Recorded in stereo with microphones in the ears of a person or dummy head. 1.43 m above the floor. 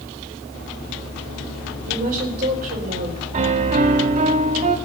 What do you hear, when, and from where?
1.9 s a woman speaking: 50° right (ahead or behind), 4 m
3.3 s a piano: 30° right (ahead or behind), 1.0 m